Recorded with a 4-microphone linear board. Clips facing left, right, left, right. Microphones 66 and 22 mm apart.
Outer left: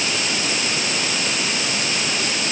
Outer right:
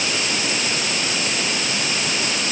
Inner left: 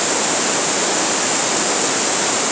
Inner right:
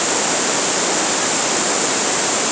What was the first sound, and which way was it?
Only background noise.